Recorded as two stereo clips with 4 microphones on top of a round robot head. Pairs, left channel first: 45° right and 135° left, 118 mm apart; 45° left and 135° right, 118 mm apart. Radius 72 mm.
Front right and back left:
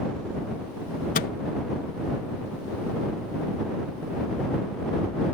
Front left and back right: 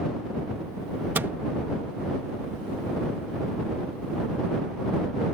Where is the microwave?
60° right.